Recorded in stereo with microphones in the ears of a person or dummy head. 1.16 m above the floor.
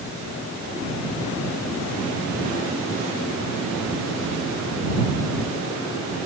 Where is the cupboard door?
No cupboard door in this recording.